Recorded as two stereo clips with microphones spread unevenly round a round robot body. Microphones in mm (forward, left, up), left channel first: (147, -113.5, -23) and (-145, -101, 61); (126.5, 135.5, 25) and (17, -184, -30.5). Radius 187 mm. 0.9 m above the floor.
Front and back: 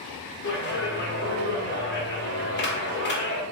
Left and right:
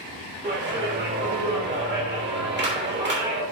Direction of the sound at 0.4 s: 50° right.